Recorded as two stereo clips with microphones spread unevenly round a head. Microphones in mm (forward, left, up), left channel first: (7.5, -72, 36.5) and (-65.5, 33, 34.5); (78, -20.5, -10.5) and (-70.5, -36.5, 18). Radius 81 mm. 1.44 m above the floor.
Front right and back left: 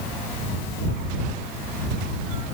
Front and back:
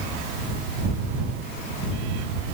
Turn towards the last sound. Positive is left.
No sound to turn to.